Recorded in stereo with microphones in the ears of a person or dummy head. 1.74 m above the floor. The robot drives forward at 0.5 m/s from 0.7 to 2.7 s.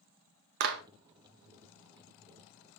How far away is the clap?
About 0.8 m.